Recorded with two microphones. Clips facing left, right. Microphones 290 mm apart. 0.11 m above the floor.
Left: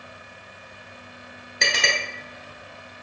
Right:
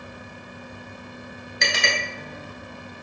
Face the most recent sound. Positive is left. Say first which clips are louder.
# even
turn(degrees=35)  # may be behind; listen again after turning